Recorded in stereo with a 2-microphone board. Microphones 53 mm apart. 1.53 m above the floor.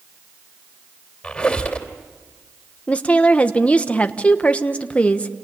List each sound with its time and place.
1.2 s a squeak: 20° left (ahead or behind), 3 m
2.9 s a woman speaking: 25° left (ahead or behind), 1.1 m